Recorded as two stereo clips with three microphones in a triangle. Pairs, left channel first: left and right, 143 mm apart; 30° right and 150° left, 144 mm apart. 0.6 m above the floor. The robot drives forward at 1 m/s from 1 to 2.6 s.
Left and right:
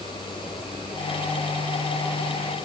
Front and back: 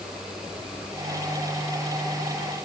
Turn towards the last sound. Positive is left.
No sound to turn to.